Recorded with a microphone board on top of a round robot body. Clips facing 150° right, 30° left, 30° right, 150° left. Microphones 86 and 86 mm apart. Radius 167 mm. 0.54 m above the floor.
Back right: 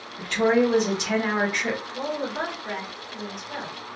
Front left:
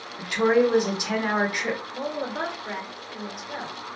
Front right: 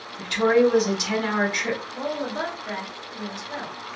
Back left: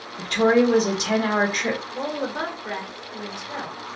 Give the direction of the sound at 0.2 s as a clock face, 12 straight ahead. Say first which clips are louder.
Even, back left 1 dB; 8 o'clock.